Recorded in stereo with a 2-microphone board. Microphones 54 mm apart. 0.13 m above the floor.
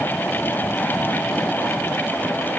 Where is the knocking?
No knocking in this recording.